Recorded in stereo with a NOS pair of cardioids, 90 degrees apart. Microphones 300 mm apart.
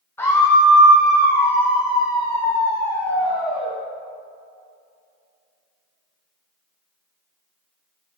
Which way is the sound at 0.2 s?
10° left.